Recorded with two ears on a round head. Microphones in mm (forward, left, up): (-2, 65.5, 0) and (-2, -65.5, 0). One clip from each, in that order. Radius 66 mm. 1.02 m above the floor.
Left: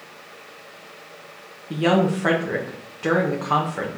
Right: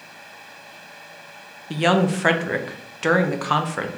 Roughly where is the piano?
No piano in this recording.